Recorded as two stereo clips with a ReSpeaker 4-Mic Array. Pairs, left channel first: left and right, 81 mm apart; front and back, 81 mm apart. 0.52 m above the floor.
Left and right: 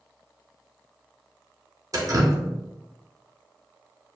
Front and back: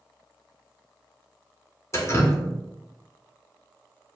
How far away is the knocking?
No knocking in this recording.